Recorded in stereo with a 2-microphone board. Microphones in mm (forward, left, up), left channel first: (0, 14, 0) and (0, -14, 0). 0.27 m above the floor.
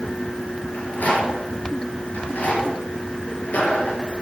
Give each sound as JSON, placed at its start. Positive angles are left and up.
{"t": 0.7, "sound": "a rattle", "side_deg": 75, "distance_m": 6.0}